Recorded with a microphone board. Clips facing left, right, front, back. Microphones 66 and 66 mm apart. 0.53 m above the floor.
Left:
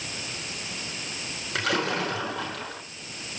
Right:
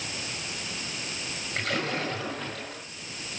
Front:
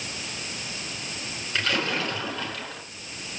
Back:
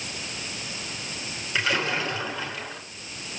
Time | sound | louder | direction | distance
1.6 | a splash | left 4 dB, back 1 dB | 95° left | 7 m